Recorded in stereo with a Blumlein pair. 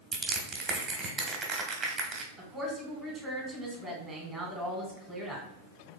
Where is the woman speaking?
5° right, 1.8 m.